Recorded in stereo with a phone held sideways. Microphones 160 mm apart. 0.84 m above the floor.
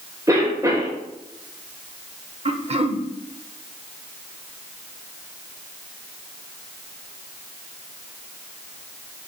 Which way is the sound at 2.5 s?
40° right (ahead or behind).